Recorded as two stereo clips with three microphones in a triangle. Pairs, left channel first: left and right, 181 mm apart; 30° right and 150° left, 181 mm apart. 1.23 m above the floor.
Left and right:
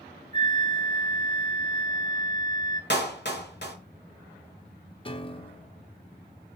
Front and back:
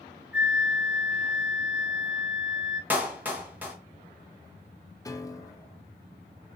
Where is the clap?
70° left, 1.1 m.